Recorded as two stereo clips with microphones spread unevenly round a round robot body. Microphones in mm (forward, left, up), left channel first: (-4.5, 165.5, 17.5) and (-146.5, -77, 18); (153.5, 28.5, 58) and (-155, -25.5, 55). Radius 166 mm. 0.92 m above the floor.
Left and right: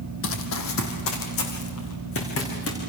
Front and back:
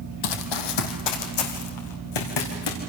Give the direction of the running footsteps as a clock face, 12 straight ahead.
12 o'clock.